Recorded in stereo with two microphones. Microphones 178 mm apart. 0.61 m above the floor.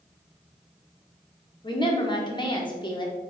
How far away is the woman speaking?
About 1.5 m.